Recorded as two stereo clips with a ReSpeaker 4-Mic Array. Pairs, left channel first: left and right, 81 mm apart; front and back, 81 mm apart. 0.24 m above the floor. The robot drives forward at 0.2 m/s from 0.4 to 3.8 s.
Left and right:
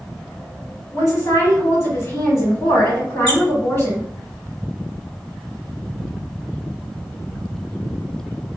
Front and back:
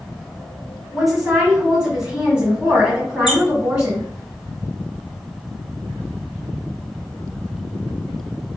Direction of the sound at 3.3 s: 95° left.